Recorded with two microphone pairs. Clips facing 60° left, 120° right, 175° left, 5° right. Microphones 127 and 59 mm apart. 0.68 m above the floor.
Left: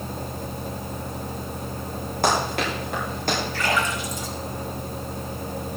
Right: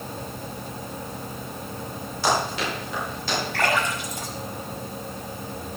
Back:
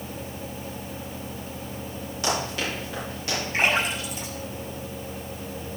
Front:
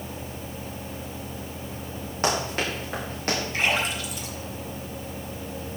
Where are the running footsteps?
35° left, 6 m; by 3.4 s 30° left, 6 m.